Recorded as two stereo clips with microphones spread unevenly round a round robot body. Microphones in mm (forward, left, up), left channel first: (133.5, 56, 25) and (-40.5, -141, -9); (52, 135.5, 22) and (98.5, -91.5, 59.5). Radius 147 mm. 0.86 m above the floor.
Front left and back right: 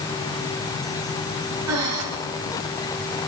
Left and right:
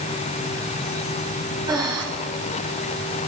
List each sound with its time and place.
1.7 s breathing: 155° right, 2.5 m